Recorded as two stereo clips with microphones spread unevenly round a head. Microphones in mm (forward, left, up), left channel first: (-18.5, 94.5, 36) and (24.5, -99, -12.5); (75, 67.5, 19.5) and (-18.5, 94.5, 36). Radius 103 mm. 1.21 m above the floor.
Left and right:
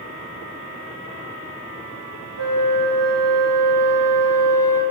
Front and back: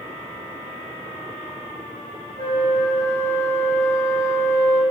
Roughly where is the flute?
Right.